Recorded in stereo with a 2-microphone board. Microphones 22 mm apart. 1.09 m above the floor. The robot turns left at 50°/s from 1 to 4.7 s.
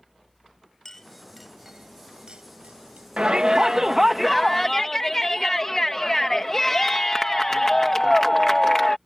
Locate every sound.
0.8 s a clink: 15° left (ahead or behind); by 3.1 s 85° right
3.2 s a shout: 125° right; by 9.0 s 160° left